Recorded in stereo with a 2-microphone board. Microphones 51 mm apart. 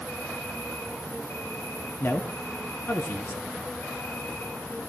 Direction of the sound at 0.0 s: 55° left (ahead or behind).